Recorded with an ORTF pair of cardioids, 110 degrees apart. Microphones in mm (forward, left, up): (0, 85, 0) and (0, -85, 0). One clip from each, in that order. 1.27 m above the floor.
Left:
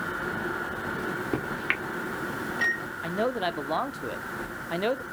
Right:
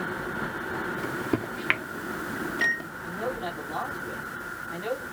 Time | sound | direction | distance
1.0 | a microwave | 15° right | 0.7 m
3.0 | a man speaking | 65° left | 0.6 m